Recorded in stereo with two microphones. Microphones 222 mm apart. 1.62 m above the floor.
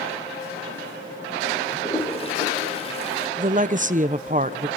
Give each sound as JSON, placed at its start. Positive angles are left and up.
{"t": 1.7, "sound": "a toilet flushing", "side_deg": 30, "distance_m": 3.5}
{"t": 3.4, "sound": "a woman speaking", "side_deg": -35, "distance_m": 0.8}